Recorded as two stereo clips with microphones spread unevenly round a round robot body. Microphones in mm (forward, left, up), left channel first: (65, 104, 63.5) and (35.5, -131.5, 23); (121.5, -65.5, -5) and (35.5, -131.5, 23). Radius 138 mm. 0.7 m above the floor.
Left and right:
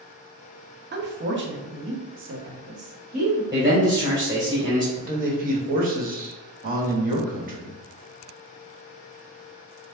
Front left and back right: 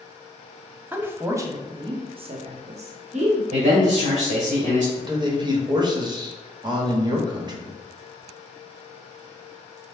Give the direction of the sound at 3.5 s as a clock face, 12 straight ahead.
6 o'clock.